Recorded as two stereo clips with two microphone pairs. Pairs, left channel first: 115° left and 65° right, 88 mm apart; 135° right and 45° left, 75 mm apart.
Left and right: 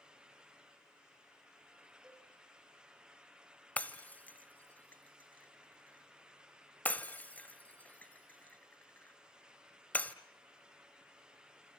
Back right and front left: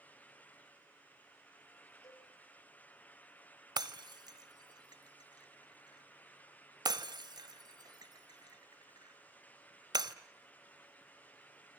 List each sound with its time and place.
2.0 s a cowbell: 150° right, 5 m
3.8 s breaking glass: 40° left, 1.3 m